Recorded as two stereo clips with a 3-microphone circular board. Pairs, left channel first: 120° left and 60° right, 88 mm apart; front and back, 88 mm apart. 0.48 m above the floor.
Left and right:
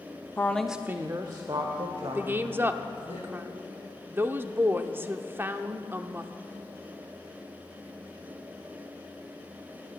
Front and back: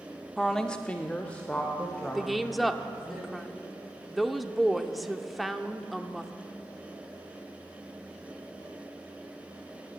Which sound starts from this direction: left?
A woman speaking, at 0.4 s.